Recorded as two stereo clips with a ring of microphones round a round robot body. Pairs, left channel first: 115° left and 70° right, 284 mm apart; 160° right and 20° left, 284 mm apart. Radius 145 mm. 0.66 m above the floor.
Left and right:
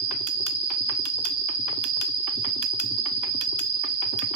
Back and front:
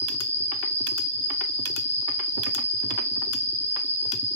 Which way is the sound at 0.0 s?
75° right.